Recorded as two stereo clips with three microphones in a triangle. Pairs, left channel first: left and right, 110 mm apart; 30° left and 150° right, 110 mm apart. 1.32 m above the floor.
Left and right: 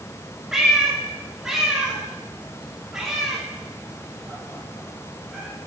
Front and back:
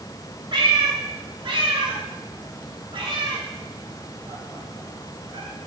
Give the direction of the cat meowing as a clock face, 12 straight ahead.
6 o'clock.